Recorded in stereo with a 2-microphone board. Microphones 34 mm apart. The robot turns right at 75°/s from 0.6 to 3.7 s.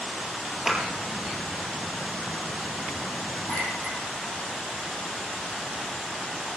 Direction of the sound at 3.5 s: 55° left (ahead or behind).